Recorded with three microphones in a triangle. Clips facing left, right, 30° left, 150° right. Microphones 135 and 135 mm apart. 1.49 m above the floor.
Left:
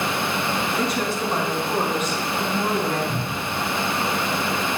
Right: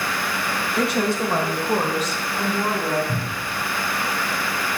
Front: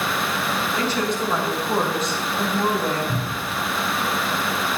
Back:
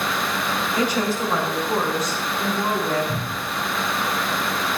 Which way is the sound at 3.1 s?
55° right.